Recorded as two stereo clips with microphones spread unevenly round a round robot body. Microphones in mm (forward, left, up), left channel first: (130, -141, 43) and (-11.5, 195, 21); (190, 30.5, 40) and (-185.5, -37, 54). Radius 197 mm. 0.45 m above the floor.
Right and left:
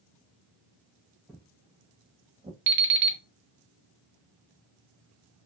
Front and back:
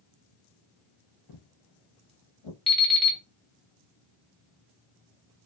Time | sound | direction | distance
1.3 | footsteps | 25° left | 0.5 m
2.7 | an alarm clock | 100° left | 0.7 m